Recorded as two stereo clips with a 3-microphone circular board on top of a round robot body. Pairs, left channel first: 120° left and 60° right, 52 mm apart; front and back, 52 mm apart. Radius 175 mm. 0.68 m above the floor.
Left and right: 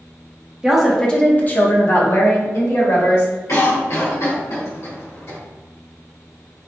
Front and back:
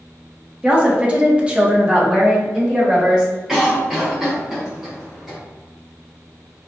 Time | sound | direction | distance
0.6 | a woman speaking | 130° right | 0.8 m
3.5 | a cough | 100° left | 1.2 m